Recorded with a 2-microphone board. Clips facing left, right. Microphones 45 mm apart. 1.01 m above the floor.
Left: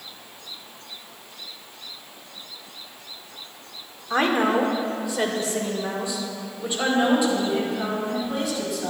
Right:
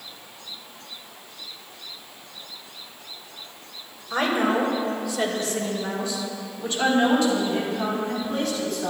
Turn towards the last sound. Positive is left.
turn(degrees=5)  # may be behind; listen again after turning